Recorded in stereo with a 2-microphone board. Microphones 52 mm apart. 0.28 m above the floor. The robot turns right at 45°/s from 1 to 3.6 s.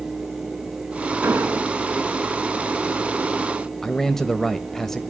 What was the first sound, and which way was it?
An explosion, 55° right (ahead or behind).